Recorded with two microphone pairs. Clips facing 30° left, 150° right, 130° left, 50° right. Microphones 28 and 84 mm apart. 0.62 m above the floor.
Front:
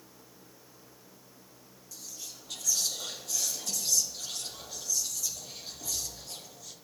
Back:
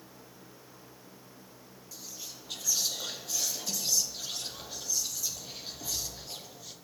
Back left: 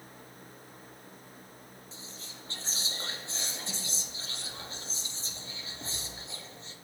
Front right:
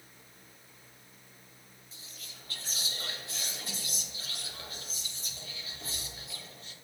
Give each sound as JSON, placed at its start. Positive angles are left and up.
{"t": 1.9, "sound": "whispering", "azimuth_deg": 150, "distance_m": 0.6}